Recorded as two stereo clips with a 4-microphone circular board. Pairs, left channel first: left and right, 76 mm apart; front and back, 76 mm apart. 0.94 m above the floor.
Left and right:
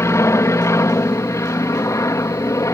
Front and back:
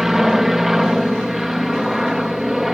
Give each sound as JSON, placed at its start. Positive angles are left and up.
{"t": 0.0, "sound": "an aircraft", "azimuth_deg": 95}